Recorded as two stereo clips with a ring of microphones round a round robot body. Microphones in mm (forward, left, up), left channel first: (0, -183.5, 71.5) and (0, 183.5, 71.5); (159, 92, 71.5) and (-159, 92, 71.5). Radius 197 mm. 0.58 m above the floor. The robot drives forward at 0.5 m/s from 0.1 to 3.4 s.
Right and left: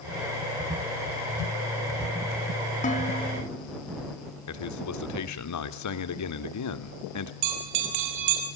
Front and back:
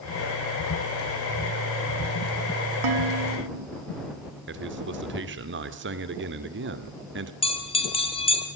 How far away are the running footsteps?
I don't hear running footsteps.